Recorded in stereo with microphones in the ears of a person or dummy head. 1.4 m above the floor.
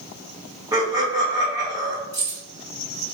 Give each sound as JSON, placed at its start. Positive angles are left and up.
{"t": 0.7, "sound": "laughter", "side_deg": -15, "distance_m": 0.5}
{"t": 2.1, "sound": "keys jangling", "side_deg": 20, "distance_m": 1.7}